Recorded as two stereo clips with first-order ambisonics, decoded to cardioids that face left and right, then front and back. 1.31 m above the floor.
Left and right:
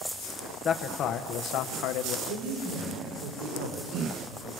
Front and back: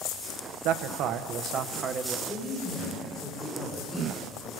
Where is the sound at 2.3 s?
80° right, 4.5 m.